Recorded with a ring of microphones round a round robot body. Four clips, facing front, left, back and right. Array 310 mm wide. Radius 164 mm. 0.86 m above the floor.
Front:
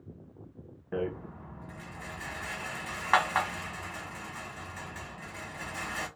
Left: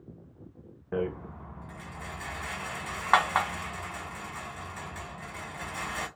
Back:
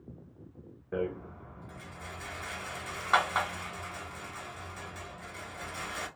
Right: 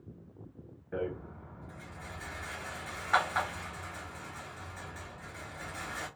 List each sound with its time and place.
0.9 s a rattle: 75° left, 1.2 m